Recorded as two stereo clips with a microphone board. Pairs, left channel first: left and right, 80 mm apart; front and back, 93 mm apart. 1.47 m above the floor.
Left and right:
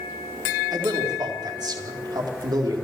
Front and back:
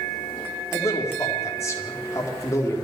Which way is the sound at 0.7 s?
55° right.